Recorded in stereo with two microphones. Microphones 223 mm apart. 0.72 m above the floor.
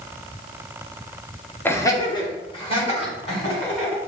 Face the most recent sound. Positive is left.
turn(degrees=30)  # may be behind; listen again after turning